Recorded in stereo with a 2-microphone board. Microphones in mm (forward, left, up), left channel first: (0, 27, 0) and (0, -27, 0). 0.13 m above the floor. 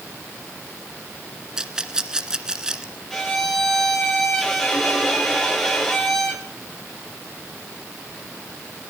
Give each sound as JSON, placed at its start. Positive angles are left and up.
{"t": 1.6, "sound": "a rattle", "side_deg": -15, "distance_m": 1.7}
{"t": 3.1, "sound": "a violin", "side_deg": 10, "distance_m": 9.0}